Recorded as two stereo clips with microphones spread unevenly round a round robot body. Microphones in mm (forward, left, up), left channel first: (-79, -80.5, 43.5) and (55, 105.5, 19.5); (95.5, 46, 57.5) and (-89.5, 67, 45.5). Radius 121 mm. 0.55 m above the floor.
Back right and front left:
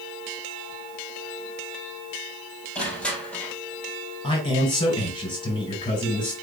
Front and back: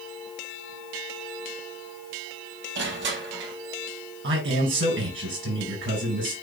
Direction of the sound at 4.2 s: 165° left.